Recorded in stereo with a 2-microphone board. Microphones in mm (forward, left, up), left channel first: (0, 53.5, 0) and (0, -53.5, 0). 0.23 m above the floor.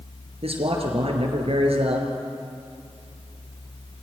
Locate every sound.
0.4 s a man speaking: 70° right (ahead or behind), 4.5 m